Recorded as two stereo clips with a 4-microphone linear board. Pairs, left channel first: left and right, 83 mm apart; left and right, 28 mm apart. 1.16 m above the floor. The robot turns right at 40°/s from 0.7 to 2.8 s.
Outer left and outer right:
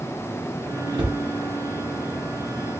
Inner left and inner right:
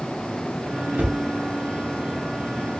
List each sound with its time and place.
0.9 s a cupboard door: 75° right (ahead or behind), 1.1 m; by 1.2 s 85° right, 1.1 m